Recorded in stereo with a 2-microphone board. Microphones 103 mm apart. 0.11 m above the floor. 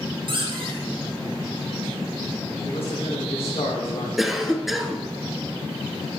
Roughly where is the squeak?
Right.